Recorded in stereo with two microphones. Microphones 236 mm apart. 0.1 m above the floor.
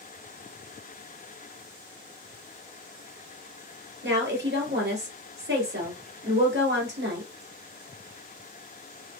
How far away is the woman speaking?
About 2 m.